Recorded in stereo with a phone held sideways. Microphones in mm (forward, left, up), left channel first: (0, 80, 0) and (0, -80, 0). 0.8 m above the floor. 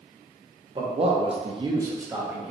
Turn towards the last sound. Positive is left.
turn(degrees=-5)  # may be behind; listen again after turning